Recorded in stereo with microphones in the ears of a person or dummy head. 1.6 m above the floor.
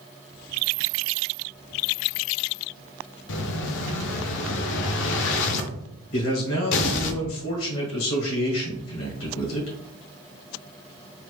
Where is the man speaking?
75° left (ahead or behind), 1.4 m.